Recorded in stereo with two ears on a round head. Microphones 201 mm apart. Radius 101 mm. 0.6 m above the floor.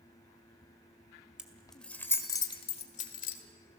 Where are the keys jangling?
5° right (ahead or behind), 2.0 m; by 3.4 s 45° left (ahead or behind), 1.8 m.